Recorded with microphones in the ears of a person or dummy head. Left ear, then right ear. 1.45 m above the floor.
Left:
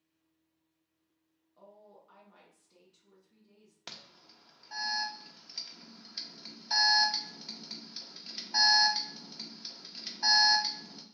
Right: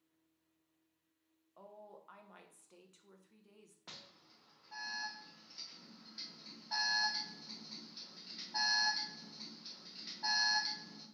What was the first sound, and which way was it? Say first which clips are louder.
A woman speaking: right 1 dB; 40° right (ahead or behind).